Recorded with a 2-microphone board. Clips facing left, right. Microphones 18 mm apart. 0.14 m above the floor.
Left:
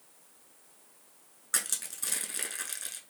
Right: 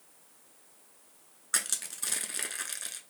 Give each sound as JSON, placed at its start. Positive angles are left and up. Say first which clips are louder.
{"t": 1.5, "sound": "crushing", "louder": "right 1 dB", "side_deg": -10, "distance_m": 0.6}